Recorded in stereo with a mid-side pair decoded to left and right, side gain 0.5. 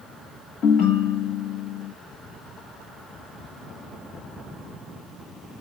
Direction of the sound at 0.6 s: 70° left.